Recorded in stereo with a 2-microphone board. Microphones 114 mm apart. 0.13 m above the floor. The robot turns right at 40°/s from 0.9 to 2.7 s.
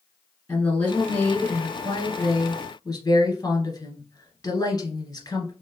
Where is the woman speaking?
25° left, 1.4 m; by 5.5 s 100° left, 1.4 m.